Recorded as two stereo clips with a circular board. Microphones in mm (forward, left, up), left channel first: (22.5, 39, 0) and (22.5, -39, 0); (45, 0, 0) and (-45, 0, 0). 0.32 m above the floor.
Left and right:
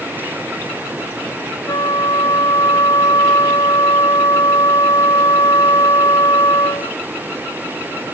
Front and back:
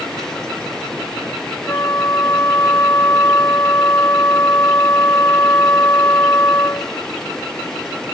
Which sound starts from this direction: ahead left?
A flute, at 1.7 s.